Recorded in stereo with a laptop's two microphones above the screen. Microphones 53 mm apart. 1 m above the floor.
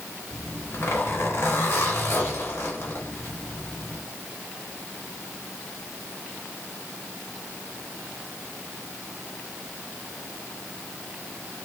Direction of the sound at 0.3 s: 50° left (ahead or behind).